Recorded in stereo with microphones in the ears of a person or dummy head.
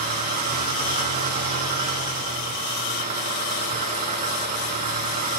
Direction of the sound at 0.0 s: 45° right (ahead or behind).